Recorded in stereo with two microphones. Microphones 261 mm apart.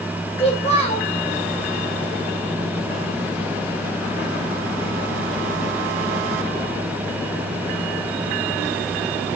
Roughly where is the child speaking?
Left.